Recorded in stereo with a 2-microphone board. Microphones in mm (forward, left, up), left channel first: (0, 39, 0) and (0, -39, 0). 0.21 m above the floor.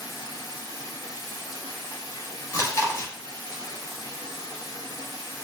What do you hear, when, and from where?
0.0 s running water: 50° left (ahead or behind), 0.8 m
2.5 s chewing: 45° left (ahead or behind), 0.7 m